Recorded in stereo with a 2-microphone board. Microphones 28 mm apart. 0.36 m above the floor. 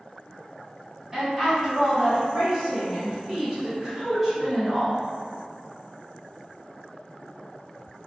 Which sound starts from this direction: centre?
A woman speaking, at 1.1 s.